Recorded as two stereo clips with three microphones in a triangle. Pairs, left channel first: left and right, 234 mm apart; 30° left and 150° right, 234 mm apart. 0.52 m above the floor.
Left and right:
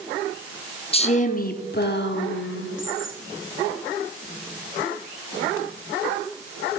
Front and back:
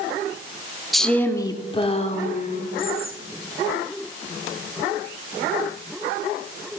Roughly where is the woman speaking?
Behind left.